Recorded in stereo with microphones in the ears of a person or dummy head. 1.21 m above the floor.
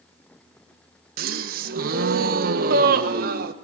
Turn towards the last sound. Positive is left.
turn(degrees=-60)  # may be behind; listen again after turning